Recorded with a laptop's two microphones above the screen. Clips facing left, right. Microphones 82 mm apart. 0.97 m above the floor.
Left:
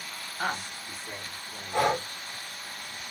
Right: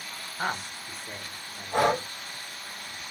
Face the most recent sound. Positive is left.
turn(degrees=-70)  # may be behind; listen again after turning